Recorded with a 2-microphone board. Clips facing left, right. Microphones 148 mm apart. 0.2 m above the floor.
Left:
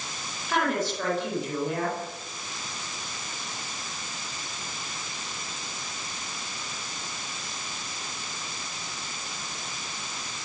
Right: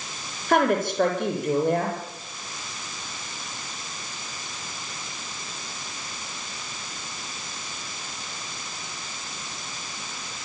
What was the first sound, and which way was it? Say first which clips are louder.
A woman speaking: right 6 dB; 55° right (ahead or behind).